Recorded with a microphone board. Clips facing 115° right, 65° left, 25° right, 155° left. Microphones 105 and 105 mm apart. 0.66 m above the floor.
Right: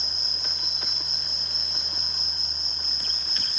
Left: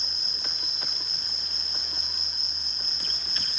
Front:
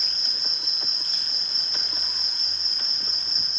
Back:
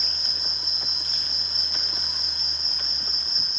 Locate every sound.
0.0 s an insect: 115° right, 4 m